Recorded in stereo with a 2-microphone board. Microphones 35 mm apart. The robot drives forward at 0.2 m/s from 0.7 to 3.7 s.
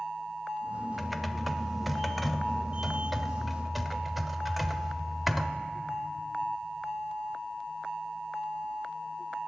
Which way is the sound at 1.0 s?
Centre (ahead or behind).